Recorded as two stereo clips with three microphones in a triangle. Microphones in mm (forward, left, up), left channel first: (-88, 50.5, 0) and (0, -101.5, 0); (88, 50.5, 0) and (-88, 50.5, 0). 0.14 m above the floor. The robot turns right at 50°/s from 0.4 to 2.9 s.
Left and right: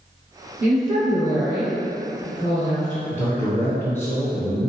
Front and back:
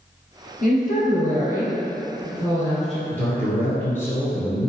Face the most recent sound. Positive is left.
turn(degrees=60)